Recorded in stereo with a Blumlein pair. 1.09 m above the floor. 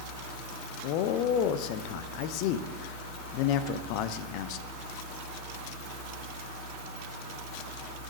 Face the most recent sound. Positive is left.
turn(degrees=45)